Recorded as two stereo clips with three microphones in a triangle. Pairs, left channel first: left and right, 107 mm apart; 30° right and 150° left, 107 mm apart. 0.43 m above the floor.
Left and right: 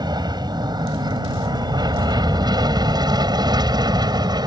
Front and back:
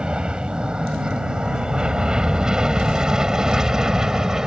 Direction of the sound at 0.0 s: 130° right.